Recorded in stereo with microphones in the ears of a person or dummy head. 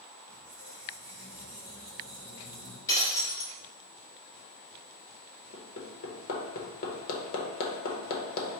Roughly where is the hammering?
Left.